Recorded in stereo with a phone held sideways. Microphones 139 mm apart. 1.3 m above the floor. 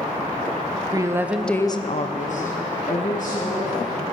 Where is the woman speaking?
25° right (ahead or behind), 1.1 m; by 4.0 s 60° left (ahead or behind), 3 m.